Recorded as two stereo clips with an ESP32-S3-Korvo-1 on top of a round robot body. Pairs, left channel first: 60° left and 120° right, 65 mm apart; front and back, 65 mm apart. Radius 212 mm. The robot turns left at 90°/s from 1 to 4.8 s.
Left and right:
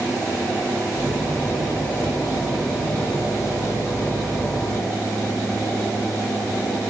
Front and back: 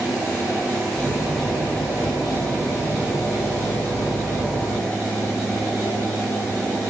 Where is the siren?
I don't hear a siren.